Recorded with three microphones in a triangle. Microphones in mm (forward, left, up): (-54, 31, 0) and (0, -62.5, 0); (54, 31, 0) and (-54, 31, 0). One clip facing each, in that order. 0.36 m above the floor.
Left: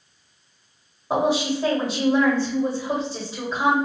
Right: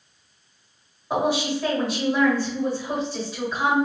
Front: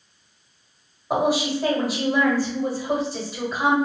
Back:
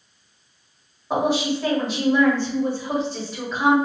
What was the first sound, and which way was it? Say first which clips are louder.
A woman speaking: left 2 dB, even; 75° left.